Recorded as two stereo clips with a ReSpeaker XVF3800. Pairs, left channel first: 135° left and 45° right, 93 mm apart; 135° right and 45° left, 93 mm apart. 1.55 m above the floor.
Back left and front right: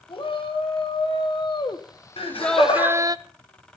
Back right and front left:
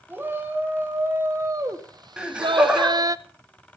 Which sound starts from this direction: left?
A shout, at 0.1 s.